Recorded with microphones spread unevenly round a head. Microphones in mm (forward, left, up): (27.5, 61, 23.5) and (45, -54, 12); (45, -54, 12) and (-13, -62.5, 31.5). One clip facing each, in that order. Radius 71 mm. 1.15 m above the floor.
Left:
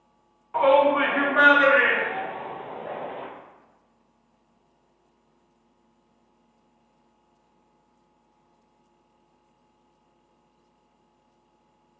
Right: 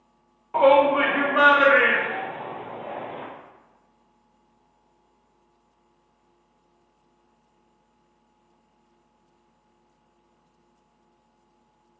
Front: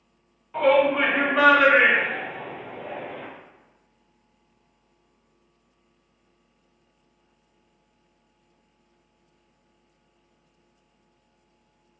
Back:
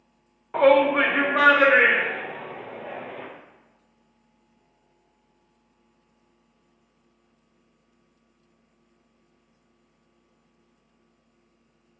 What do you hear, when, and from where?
0.5 s a shout: 130° right, 0.6 m; by 3.2 s 150° right, 2.5 m